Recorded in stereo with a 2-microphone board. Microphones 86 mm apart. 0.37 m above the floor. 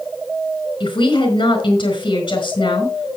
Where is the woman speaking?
75° left (ahead or behind), 4.5 m.